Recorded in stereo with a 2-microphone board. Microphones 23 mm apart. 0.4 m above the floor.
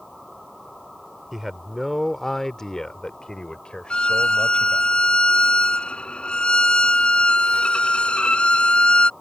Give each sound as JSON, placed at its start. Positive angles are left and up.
{"t": 1.3, "sound": "a man speaking", "side_deg": -15}
{"t": 3.9, "sound": "a violin", "side_deg": 55}